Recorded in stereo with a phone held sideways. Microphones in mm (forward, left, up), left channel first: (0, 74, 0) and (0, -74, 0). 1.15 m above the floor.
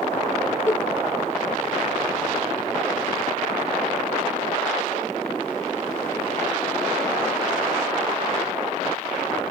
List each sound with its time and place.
0.7 s a giggle: 40° left (ahead or behind), 0.9 m